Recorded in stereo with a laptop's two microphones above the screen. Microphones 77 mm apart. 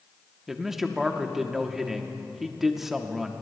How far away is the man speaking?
About 0.9 m.